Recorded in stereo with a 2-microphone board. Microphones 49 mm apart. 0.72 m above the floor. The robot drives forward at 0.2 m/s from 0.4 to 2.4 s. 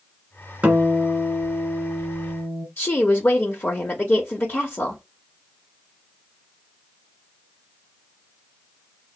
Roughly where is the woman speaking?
Left.